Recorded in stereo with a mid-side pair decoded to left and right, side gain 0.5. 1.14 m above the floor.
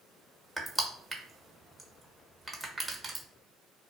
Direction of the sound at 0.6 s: 20° right.